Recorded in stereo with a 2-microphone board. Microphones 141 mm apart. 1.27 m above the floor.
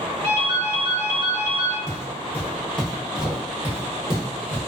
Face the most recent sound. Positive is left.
turn(degrees=-30)  # may be behind; listen again after turning